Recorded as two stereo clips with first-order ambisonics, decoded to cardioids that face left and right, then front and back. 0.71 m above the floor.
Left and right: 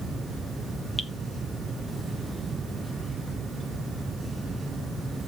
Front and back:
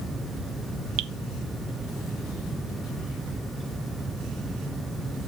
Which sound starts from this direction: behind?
Dripping, at 1.0 s.